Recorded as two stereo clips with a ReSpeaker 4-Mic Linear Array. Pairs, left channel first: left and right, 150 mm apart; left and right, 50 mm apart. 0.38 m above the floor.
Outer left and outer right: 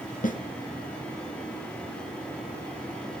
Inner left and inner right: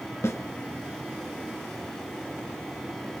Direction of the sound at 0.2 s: 60° left (ahead or behind).